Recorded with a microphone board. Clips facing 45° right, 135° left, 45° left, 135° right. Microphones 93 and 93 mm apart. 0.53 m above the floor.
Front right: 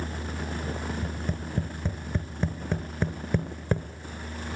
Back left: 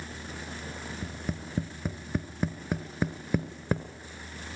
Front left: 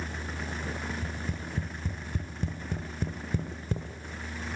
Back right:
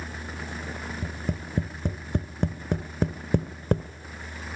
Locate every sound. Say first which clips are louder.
1.0 s tapping: front right 3 dB, back right 3 dB; 140° right, 1.2 m